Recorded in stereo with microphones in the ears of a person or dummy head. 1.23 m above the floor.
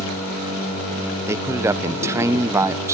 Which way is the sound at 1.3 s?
15° right (ahead or behind).